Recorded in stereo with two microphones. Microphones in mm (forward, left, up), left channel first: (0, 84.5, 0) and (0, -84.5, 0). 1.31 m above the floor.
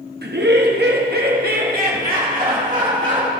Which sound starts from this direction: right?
Laughter, at 0.2 s.